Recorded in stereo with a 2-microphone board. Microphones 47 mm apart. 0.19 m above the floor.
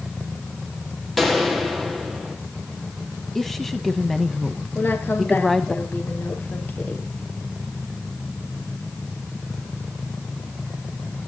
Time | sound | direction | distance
1.2 | a gunshot | centre (ahead or behind) | 3 m
3.4 | a woman speaking | 5° left (ahead or behind) | 1.2 m
4.8 | a woman speaking | 45° left (ahead or behind) | 3.5 m